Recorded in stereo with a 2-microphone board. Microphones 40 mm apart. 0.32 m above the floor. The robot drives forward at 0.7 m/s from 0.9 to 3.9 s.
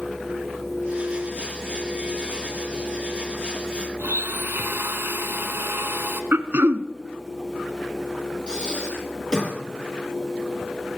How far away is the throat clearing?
About 1.0 m.